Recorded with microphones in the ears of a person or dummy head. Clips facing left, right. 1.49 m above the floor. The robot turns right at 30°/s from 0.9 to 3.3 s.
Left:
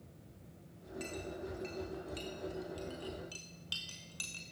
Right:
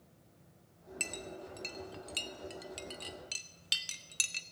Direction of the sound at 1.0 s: 25° right (ahead or behind).